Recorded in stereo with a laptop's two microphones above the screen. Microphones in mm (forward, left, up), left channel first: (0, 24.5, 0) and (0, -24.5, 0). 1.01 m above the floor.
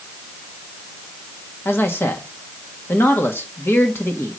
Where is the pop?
I don't hear a pop.